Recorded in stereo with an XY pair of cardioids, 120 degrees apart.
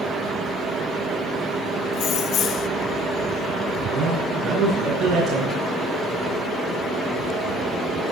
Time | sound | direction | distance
1.9 | keys jangling | 60° left | 0.8 m
3.9 | a man speaking | 55° right | 9.5 m